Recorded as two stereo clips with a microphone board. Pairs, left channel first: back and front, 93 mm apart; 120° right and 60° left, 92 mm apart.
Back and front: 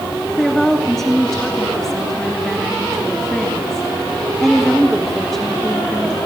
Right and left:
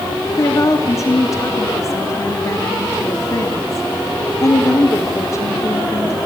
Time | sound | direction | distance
0.3 | a woman speaking | 95° right | 1.3 m